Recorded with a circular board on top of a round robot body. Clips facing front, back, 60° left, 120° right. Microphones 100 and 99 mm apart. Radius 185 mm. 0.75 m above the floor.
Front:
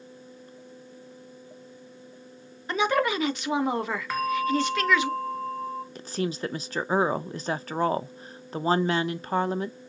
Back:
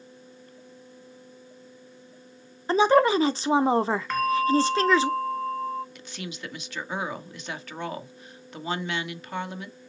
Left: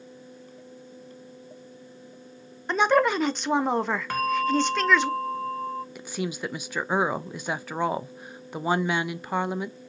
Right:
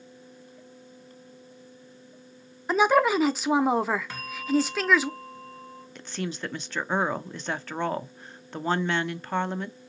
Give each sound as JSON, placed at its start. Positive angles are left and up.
{"t": 2.7, "sound": "a woman speaking", "azimuth_deg": 155, "distance_m": 0.7}
{"t": 4.1, "sound": "a bell", "azimuth_deg": 85, "distance_m": 0.8}
{"t": 6.0, "sound": "a woman speaking", "azimuth_deg": -15, "distance_m": 0.6}